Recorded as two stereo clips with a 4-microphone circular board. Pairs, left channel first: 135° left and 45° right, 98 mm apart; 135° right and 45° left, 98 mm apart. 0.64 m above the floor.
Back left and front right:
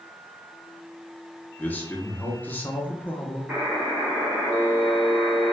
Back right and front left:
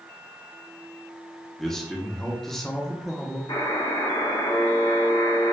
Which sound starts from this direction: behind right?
A buzzer, at 3.5 s.